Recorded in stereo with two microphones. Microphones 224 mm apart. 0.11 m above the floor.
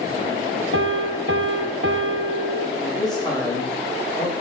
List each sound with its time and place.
0.7 s a piano: 65° right (ahead or behind), 0.7 m
2.8 s a man speaking: 20° left (ahead or behind), 5.5 m